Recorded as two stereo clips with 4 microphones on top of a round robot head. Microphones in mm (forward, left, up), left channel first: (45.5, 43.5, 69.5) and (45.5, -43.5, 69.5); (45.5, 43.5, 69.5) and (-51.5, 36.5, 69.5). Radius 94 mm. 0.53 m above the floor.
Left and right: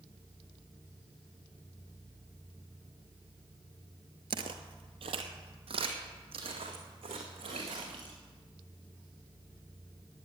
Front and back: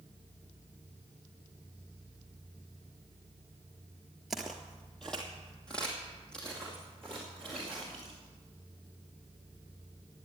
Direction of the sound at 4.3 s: 85° right.